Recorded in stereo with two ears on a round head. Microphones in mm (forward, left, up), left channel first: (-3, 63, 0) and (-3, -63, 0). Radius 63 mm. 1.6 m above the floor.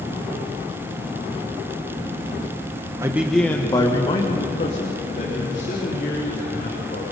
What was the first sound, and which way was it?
A man speaking, 20° right (ahead or behind).